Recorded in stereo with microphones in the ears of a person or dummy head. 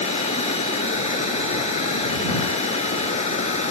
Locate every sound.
0.0 s running water: 40° left (ahead or behind)